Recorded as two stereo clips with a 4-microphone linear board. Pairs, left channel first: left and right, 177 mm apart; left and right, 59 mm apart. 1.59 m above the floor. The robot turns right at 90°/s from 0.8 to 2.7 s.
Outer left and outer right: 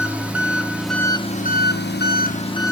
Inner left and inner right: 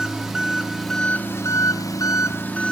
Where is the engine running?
5° right, 1.2 m; by 2.7 s 165° left, 1.2 m.